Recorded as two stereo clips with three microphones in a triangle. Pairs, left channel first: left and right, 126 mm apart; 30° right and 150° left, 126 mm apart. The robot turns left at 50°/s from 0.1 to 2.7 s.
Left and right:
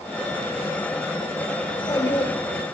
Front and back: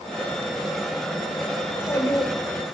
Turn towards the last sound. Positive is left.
turn(degrees=-5)